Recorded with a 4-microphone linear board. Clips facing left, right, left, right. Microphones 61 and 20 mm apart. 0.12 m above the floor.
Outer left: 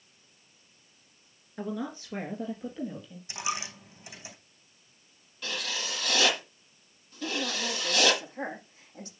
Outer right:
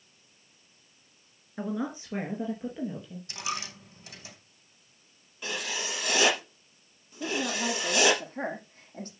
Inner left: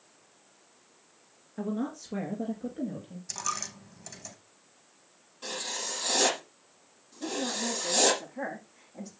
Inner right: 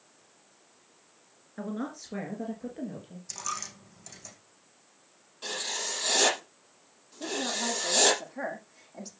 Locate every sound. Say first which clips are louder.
1.6 s a woman speaking: outer right 2 dB, inner left 2 dB; 20° right (ahead or behind), 1.9 m; by 3.2 s 15° right (ahead or behind), 3.5 m
3.3 s a dropped coin: outer left 2 dB, inner left 2 dB; 15° left (ahead or behind), 3.5 m
5.4 s writing: outer right 1 dB, inner right 2 dB; 20° right (ahead or behind), 5 m
7.2 s a woman speaking: outer right 2 dB, inner right 1 dB; 45° right (ahead or behind), 7.5 m